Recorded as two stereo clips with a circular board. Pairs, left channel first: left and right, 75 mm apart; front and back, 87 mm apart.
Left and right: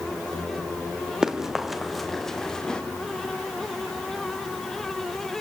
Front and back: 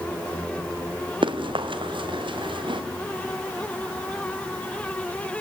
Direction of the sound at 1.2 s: 170° right.